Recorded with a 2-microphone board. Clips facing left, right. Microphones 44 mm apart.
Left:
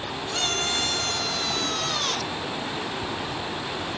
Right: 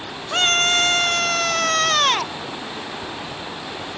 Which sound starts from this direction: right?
A scream, at 0.3 s.